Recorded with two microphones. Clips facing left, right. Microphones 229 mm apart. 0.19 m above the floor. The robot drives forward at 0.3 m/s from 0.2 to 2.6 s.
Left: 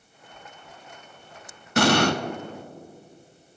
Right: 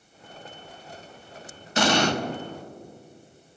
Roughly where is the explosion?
Left.